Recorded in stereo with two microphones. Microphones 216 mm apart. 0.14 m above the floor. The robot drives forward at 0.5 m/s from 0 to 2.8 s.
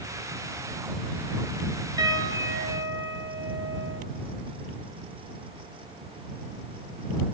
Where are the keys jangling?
No keys jangling in this recording.